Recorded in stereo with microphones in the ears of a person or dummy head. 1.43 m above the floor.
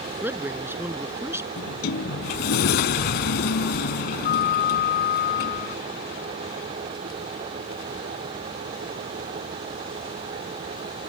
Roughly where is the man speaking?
Centre.